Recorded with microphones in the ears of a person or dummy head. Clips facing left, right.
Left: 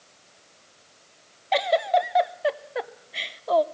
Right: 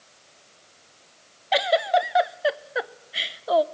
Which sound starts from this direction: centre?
A giggle, at 1.5 s.